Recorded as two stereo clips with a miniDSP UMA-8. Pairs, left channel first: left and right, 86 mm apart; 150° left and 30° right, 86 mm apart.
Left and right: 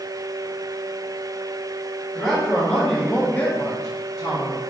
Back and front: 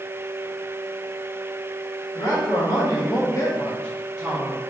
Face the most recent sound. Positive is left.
turn(degrees=30)